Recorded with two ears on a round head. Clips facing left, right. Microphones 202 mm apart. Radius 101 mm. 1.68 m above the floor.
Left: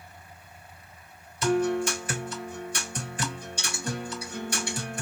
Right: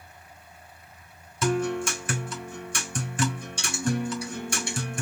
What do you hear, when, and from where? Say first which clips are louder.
1.4 s a guitar: left 2 dB; 40° right (ahead or behind), 2.5 m